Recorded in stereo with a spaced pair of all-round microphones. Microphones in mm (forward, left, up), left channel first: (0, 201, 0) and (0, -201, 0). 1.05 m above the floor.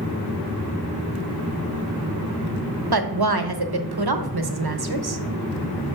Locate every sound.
2.9 s a woman speaking: 65° right (ahead or behind), 0.8 m